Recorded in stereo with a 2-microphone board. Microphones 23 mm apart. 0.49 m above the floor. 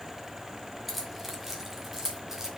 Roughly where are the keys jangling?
Centre.